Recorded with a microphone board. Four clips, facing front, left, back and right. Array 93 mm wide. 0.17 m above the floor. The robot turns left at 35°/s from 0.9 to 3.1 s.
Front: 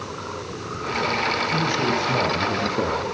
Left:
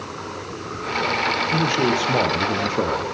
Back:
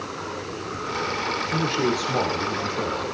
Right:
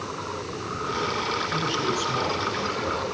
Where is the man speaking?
115° left, 5 m; by 3.0 s 60° left, 5 m.